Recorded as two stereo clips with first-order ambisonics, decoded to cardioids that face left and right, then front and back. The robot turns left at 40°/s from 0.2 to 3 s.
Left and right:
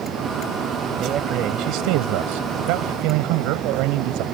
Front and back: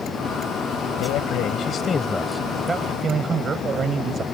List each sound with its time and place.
1.0 s a man speaking: 30° right; by 4.2 s 110° right